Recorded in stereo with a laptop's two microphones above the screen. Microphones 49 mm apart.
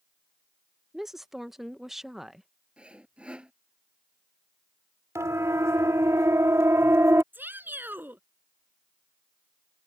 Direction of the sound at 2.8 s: 20° right (ahead or behind).